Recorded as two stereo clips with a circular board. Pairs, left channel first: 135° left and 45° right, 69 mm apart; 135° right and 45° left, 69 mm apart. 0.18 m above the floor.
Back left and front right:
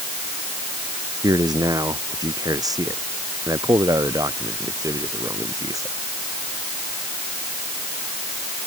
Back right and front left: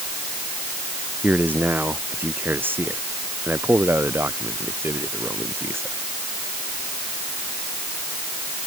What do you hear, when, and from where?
1.2 s a man speaking: 20° right; by 6.0 s 10° right